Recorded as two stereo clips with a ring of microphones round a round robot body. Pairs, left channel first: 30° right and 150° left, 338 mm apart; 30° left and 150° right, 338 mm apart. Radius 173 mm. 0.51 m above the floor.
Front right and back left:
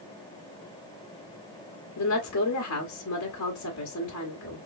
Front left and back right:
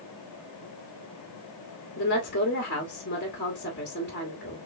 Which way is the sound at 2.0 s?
15° right.